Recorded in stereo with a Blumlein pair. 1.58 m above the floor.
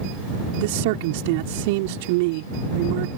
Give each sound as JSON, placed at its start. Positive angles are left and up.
{"t": 0.6, "sound": "a man speaking", "azimuth_deg": -50}